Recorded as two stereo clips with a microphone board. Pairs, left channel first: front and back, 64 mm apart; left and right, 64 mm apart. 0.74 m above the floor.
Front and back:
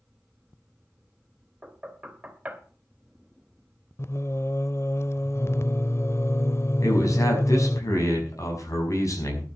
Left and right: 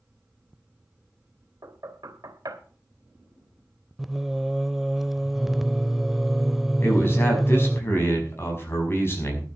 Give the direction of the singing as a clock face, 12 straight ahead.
12 o'clock.